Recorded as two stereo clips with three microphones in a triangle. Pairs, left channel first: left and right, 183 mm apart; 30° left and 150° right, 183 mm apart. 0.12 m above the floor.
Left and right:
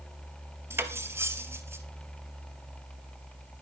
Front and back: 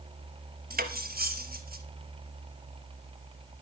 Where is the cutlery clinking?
165° right, 1.3 m.